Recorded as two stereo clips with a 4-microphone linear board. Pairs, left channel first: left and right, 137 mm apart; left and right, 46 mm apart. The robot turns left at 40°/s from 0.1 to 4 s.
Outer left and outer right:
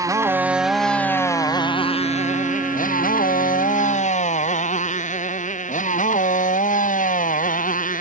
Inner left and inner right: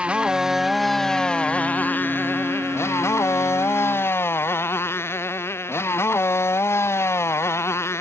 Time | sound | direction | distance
0.0 | a motorcycle | 25° right (ahead or behind) | ?